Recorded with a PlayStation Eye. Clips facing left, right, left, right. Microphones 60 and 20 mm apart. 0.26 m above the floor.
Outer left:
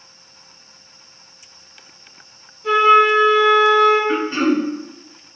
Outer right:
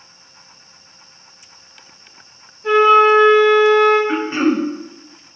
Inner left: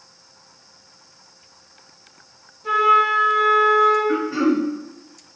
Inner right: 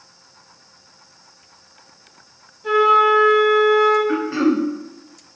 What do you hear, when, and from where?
2.6 s a flute: 40° right (ahead or behind), 1.8 m
4.1 s throat clearing: 20° right (ahead or behind), 0.6 m